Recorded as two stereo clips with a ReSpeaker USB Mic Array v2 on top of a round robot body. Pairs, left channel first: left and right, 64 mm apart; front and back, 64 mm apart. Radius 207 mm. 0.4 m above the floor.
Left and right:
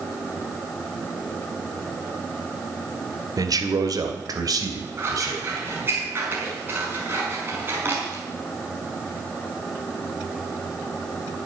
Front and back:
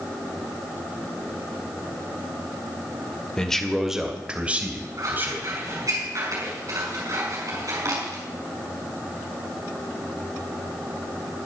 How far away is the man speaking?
About 2.5 m.